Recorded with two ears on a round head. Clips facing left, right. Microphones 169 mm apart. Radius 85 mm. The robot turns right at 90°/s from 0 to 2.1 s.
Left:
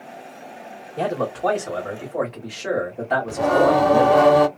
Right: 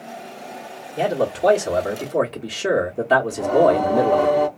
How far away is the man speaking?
About 1.1 m.